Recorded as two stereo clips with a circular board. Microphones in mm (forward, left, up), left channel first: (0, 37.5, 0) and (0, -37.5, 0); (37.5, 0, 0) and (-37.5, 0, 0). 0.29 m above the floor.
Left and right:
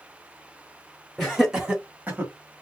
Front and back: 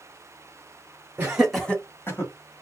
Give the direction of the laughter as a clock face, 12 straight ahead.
6 o'clock.